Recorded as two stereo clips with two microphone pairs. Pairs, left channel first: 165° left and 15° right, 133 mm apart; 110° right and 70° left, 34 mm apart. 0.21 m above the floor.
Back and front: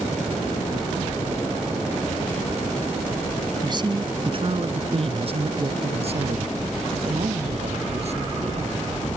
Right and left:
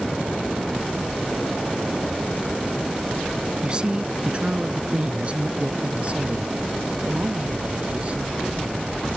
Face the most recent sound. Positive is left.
turn(degrees=20)